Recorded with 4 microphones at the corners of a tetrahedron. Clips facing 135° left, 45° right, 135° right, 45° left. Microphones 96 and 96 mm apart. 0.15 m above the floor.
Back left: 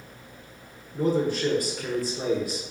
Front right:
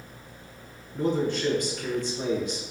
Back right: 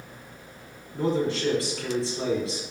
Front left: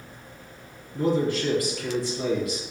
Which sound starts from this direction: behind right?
A man speaking, at 0.9 s.